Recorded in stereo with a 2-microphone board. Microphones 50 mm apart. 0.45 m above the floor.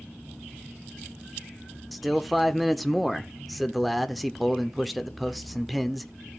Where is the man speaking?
Centre (ahead or behind), 0.8 m.